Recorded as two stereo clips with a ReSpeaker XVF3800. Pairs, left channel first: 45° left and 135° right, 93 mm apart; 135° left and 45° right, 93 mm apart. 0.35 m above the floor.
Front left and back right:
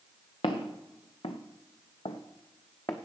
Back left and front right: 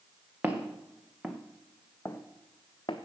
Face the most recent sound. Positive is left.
turn(degrees=100)